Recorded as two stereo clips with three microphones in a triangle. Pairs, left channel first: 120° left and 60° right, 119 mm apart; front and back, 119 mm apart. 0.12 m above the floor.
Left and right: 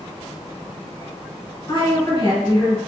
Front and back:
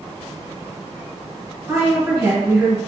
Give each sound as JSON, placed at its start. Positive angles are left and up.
{"t": 1.7, "sound": "a woman speaking", "azimuth_deg": 130, "distance_m": 1.6}